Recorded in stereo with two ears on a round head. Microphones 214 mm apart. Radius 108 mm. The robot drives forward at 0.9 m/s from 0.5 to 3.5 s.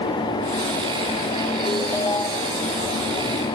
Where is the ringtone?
15° left (ahead or behind).